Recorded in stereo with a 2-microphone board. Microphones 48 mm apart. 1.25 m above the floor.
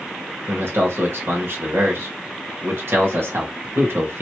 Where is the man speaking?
55° right (ahead or behind), 1.4 m.